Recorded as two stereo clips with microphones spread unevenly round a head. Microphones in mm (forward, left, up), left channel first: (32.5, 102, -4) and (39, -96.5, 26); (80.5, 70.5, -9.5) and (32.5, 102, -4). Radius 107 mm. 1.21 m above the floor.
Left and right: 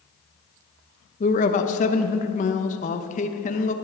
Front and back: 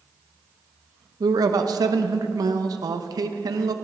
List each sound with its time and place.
1.2 s a man speaking: 150° left, 0.7 m